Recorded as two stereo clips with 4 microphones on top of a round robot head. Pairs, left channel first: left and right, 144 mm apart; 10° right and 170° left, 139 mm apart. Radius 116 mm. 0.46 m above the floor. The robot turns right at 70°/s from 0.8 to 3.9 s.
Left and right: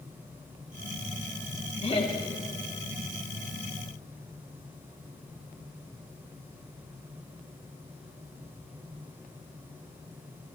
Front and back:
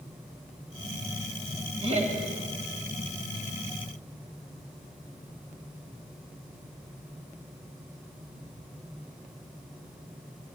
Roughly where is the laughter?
Behind left.